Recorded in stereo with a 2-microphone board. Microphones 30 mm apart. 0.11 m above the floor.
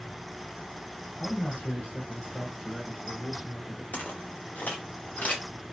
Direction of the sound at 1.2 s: 60° left (ahead or behind).